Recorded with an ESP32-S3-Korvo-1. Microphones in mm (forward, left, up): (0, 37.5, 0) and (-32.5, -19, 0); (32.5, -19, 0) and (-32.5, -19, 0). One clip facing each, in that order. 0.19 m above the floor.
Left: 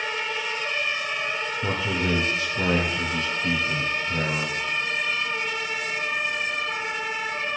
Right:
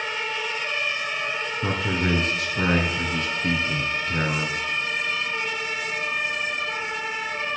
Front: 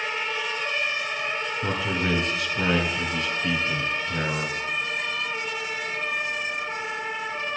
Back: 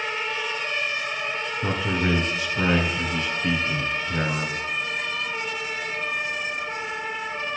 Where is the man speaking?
100° right, 2.5 m.